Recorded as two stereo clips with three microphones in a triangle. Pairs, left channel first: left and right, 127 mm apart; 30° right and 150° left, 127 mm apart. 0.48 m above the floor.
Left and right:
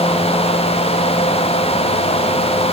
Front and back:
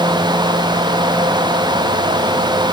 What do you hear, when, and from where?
Only background noise.